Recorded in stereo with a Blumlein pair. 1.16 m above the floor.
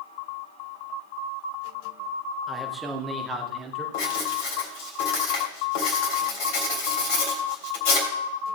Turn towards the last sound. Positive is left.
turn(degrees=45)